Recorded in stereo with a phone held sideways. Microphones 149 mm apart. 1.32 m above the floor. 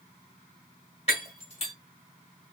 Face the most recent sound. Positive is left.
turn(degrees=45)  # may be behind; listen again after turning